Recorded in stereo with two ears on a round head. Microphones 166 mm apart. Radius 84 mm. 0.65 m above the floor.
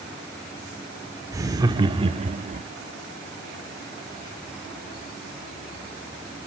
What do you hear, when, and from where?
1.3 s laughter: 15° right (ahead or behind), 1.9 m; by 2.6 s 40° right (ahead or behind), 1.1 m